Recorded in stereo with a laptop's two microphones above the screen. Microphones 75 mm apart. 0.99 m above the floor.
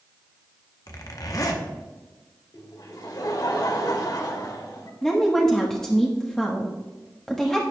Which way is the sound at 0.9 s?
50° left (ahead or behind).